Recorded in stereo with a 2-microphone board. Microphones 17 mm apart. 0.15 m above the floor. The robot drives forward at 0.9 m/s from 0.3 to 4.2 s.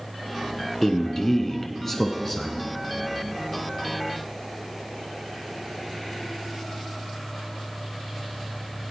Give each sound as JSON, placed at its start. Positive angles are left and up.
{"t": 0.8, "sound": "a man speaking", "side_deg": 25, "distance_m": 1.3}